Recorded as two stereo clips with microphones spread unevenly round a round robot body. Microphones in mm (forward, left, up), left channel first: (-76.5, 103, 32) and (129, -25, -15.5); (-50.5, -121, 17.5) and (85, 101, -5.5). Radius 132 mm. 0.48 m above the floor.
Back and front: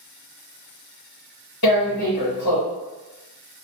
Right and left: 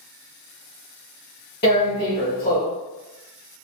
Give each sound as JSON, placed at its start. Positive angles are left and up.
{"t": 1.6, "sound": "tearing paper", "azimuth_deg": 180, "distance_m": 1.4}